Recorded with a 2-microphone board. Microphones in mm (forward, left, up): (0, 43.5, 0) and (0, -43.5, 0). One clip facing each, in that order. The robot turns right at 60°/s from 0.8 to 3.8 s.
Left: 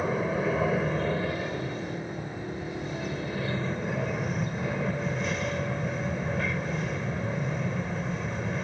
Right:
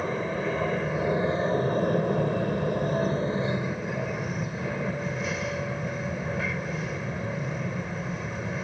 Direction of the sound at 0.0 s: Straight behind.